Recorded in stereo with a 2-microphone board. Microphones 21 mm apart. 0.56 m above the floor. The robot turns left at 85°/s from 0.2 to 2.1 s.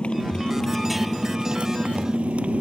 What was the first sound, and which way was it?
A motorcycle, 55° left.